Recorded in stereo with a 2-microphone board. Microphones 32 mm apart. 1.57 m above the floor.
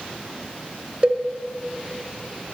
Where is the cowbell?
30° right (ahead or behind), 0.5 m.